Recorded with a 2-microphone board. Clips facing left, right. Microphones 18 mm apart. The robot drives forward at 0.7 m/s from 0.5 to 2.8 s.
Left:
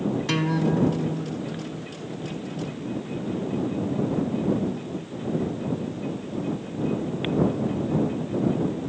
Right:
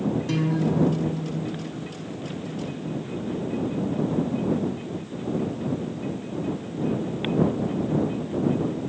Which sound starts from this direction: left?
A guitar, at 0.3 s.